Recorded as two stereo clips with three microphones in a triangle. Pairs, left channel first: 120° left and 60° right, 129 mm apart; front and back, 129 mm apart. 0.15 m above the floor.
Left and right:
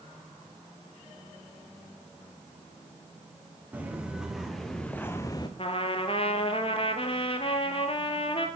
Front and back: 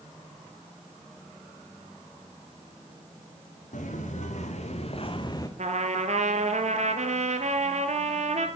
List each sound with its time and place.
3.7 s footsteps: 20° left, 1.8 m; by 5.5 s 65° left, 0.8 m
5.6 s a trumpet: 160° left, 0.9 m